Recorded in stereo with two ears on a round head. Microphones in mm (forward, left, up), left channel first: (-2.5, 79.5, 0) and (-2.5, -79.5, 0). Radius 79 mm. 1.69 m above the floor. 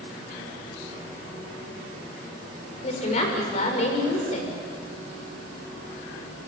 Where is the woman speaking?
40° left (ahead or behind), 7 m.